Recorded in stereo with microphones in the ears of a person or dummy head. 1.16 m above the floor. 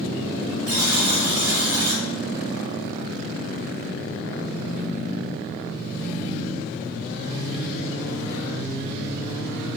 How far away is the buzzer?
About 0.9 m.